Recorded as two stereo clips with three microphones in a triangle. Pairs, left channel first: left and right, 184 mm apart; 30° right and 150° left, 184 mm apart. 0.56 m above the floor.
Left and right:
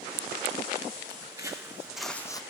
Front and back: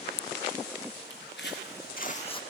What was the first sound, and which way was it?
Footsteps, 20° right.